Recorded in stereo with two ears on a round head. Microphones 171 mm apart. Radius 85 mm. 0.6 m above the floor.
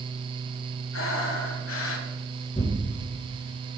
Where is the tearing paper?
30° left (ahead or behind), 3.5 m.